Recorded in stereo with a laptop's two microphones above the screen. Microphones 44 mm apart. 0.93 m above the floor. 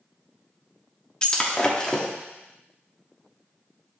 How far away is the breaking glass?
About 0.8 m.